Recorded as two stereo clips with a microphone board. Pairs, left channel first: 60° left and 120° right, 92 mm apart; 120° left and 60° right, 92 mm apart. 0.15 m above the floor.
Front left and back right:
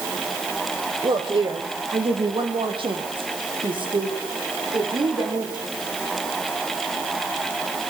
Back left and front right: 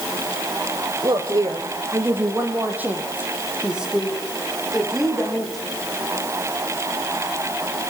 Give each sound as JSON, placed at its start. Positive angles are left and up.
{"t": 1.0, "sound": "a woman speaking", "azimuth_deg": -105, "distance_m": 4.5}